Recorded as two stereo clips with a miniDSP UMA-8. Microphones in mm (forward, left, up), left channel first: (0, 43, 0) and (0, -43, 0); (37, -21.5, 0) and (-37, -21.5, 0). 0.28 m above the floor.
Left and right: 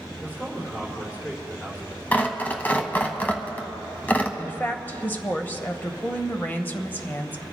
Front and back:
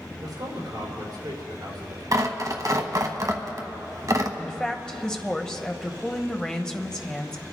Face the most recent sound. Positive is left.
turn(degrees=65)